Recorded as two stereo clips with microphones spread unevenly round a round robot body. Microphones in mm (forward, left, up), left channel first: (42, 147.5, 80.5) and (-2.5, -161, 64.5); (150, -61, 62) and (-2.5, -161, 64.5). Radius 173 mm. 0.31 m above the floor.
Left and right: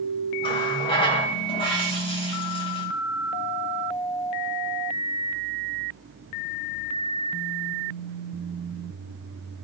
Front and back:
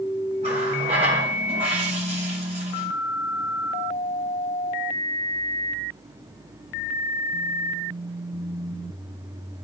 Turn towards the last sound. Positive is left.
turn(degrees=155)